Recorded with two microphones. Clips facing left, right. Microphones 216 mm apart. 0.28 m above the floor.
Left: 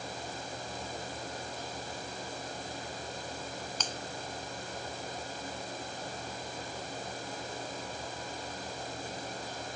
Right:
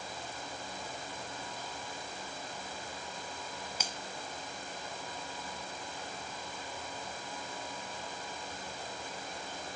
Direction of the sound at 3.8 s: 10° right (ahead or behind).